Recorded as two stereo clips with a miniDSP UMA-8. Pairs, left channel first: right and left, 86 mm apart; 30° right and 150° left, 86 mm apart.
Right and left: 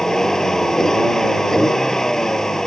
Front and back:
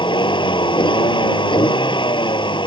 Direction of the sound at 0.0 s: 5° right.